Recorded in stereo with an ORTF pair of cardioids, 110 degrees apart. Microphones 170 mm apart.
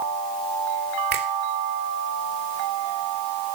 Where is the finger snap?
65° right, 3 m.